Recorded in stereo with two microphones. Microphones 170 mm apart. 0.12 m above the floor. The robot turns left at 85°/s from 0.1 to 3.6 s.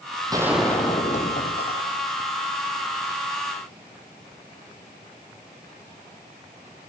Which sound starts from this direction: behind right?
A gunshot, at 0.3 s.